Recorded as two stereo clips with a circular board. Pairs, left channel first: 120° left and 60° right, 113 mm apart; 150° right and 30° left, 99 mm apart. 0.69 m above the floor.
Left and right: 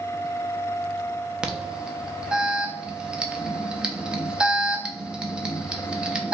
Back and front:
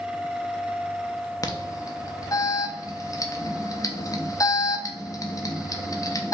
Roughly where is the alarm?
Behind right.